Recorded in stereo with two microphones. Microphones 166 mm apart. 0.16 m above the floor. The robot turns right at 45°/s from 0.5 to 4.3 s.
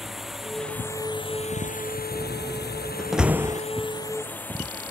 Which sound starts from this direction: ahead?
A drone, at 0.0 s.